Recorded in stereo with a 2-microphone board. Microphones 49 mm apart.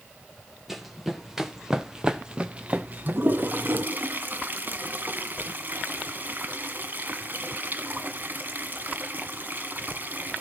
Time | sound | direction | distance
0.7 | running footsteps | 5° right (ahead or behind) | 2 m
3.1 | a toilet flushing | 45° right (ahead or behind) | 1.2 m